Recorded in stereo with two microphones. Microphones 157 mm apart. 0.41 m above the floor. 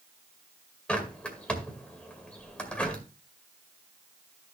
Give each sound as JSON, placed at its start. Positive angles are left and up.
{"t": 0.9, "sound": "a bird", "side_deg": 5, "distance_m": 1.9}